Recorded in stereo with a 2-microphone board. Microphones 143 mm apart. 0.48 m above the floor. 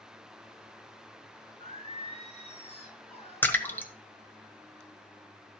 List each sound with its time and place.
1.6 s singing: 45° left (ahead or behind), 6 m
3.4 s a splash: 15° left (ahead or behind), 1.4 m